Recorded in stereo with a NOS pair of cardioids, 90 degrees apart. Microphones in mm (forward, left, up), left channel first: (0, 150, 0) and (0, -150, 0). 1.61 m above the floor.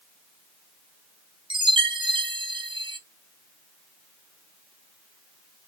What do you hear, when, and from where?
1.5 s a chime: 15° right, 1.3 m